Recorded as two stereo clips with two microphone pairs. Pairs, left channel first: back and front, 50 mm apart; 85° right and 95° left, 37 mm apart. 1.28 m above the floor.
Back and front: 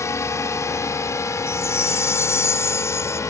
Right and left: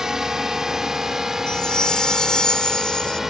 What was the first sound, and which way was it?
A drone, 170° left.